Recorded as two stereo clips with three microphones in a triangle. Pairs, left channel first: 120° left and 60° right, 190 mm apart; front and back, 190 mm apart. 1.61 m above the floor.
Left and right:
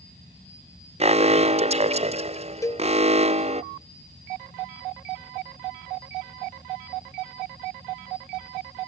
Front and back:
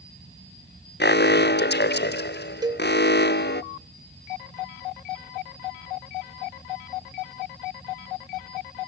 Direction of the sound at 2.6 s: 165° left.